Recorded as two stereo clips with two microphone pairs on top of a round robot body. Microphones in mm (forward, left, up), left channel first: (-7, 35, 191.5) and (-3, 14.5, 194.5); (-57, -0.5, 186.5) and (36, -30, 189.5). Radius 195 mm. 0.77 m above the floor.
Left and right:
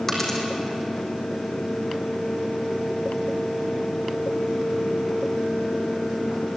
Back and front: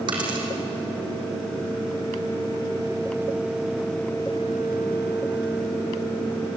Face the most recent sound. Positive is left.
turn(degrees=25)